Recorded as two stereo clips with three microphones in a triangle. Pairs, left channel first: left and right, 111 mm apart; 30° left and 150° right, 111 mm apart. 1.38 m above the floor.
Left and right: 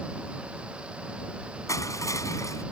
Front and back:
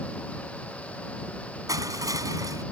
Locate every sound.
1.7 s crushing: 150° left